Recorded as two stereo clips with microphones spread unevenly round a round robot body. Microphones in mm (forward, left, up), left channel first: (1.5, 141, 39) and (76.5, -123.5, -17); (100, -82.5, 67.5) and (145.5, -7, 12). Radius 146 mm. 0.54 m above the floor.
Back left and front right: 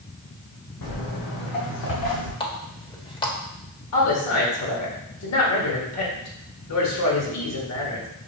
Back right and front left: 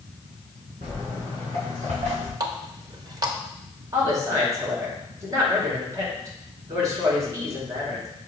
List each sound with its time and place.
0.8 s footsteps: 120° left, 2.5 m; by 2.3 s 85° left, 4 m
2.4 s a running tap: 30° left, 1.3 m
3.9 s a woman speaking: 80° left, 2 m